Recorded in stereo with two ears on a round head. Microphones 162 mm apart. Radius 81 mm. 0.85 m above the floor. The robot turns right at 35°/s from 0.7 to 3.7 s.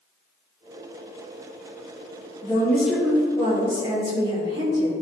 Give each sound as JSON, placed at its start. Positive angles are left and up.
{"t": 2.4, "sound": "a woman speaking", "azimuth_deg": 165, "distance_m": 2.0}